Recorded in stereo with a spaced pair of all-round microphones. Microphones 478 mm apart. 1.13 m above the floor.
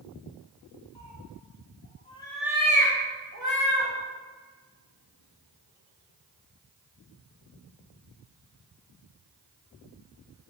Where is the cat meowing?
60° left (ahead or behind), 0.8 m; by 3.9 s 45° right (ahead or behind), 1.1 m.